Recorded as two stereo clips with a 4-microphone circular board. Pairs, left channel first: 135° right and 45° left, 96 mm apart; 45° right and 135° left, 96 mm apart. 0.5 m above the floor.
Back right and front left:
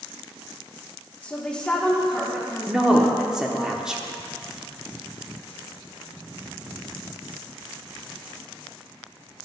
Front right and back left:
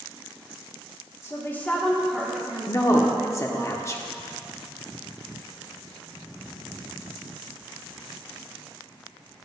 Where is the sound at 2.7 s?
30° right, 0.7 m.